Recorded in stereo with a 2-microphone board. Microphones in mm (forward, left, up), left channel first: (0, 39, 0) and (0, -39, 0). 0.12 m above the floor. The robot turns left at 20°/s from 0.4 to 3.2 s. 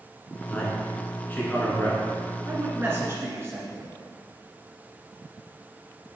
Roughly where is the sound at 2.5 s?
Right.